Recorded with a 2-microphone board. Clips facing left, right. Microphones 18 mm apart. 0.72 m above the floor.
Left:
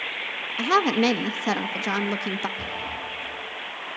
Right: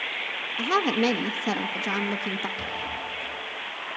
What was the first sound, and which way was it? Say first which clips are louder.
A woman speaking: left 3 dB; 20° left (ahead or behind).